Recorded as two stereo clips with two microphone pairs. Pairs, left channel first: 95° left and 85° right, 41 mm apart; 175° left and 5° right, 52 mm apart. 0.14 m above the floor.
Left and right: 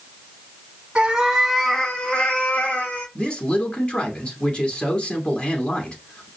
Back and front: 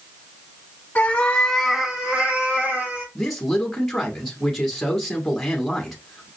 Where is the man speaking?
100° left, 1.1 m.